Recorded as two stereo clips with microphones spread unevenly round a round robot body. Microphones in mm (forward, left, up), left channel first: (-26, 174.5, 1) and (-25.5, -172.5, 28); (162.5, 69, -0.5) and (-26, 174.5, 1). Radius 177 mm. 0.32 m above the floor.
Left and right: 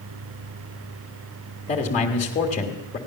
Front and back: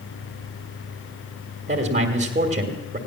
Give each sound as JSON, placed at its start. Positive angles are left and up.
{"t": 1.7, "sound": "a man speaking", "azimuth_deg": 130, "distance_m": 1.4}